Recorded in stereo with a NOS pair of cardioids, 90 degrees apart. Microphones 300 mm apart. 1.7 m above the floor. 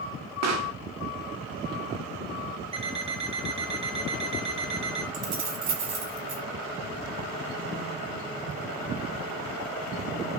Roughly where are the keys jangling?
Ahead right.